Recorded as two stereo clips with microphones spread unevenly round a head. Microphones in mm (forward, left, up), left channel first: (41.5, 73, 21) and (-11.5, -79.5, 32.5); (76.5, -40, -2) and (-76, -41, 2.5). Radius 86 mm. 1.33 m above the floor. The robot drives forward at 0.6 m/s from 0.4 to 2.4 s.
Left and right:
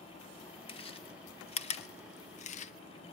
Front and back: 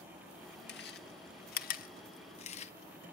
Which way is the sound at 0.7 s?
15° left.